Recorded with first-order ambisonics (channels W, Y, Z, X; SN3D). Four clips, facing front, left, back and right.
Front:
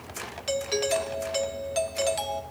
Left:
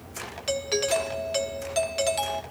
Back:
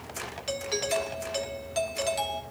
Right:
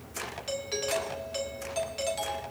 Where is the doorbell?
75° left, 1.2 m.